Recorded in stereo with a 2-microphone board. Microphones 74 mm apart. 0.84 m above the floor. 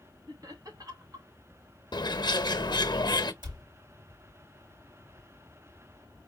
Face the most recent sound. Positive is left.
turn(degrees=-70)  # may be behind; listen again after turning